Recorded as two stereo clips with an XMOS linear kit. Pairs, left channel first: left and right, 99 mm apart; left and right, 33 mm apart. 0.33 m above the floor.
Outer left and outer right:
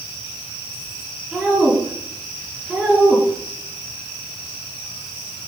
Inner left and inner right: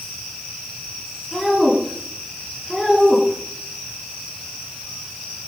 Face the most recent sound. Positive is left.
turn(degrees=-5)  # may be behind; listen again after turning